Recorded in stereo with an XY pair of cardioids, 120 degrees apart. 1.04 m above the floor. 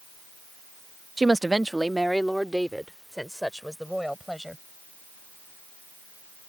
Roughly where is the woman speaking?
Ahead.